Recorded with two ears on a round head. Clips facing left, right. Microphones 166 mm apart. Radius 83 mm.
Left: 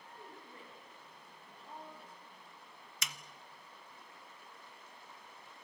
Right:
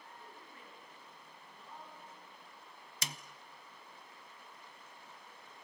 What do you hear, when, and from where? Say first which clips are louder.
0.2 s a woman speaking: left 2 dB; 30° left (ahead or behind), 6.5 m
3.0 s a snare drum: right 3 dB; 30° right (ahead or behind), 0.7 m